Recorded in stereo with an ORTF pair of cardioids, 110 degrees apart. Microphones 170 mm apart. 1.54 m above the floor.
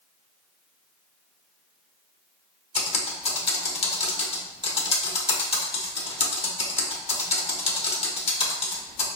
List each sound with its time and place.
2.8 s typing on a keyboard: 35° left, 1.1 m